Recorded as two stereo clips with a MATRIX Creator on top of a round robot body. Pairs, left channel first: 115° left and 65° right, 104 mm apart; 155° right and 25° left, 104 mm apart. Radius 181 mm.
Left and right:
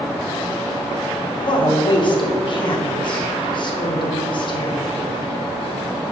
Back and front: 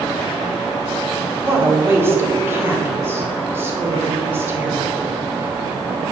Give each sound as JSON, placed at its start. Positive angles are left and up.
{"t": 1.4, "sound": "a woman speaking", "azimuth_deg": 85, "distance_m": 2.0}